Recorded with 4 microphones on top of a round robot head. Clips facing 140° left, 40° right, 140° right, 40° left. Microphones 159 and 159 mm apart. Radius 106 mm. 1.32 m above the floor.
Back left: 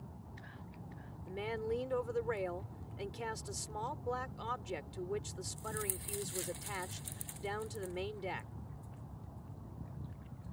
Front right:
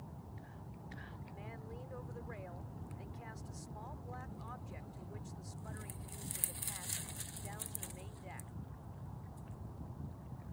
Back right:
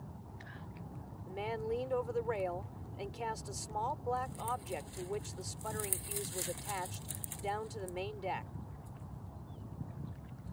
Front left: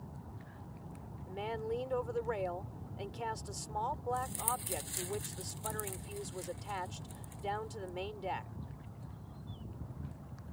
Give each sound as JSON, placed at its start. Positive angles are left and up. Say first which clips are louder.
{"t": 1.3, "sound": "a woman speaking", "louder": "back left 16 dB, back right 1 dB", "azimuth_deg": 130}